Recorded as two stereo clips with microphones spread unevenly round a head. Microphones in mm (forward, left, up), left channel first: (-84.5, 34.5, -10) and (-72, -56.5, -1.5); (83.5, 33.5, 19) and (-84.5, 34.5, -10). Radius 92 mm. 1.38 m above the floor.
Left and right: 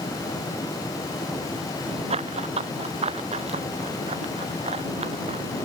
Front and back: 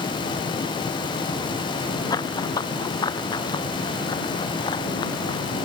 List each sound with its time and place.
2.1 s running footsteps: 70° right